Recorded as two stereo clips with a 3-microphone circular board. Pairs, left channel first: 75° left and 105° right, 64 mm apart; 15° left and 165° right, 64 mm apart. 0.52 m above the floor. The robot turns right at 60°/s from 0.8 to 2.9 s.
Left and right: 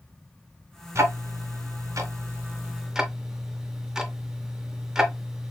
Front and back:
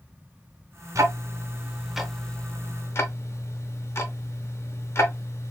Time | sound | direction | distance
0.9 | ticking | 140° right | 0.8 m